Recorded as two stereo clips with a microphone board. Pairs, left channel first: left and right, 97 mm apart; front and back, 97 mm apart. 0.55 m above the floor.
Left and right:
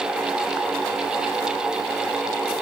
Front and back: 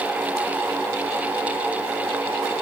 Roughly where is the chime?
I don't hear a chime.